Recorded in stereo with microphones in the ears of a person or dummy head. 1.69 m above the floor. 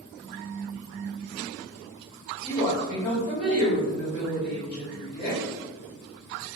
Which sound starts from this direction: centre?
A woman speaking, at 2.4 s.